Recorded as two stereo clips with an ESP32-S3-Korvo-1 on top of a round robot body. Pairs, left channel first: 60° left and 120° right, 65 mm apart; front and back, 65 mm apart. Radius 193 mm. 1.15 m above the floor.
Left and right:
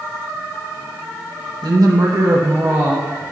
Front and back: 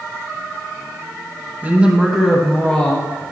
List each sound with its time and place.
1.6 s a woman speaking: 120° right, 1.6 m; by 3.2 s 60° right, 2 m